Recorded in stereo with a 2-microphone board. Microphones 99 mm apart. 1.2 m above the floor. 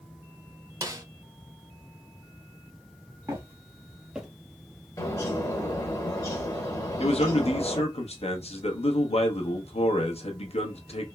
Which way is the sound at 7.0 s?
70° left (ahead or behind).